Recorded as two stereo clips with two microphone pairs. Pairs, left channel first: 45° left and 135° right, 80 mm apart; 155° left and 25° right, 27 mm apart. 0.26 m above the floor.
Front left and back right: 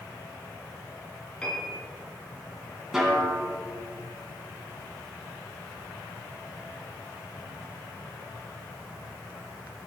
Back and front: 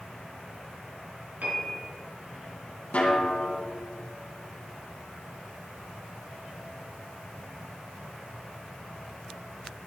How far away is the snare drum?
About 2.5 m.